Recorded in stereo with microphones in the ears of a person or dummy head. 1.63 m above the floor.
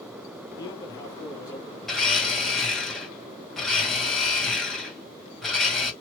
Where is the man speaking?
20° left (ahead or behind), 1.9 m.